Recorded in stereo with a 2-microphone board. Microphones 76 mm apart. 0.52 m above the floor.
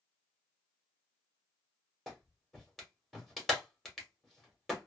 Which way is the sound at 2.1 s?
Centre (ahead or behind).